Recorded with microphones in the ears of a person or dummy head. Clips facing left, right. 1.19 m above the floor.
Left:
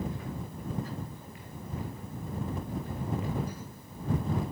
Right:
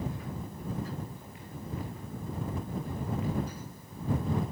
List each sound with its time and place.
Only background noise.